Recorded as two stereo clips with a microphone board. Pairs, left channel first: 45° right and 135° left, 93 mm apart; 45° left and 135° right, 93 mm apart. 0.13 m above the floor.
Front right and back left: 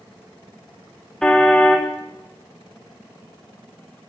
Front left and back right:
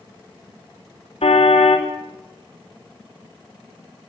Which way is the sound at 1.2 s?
40° left.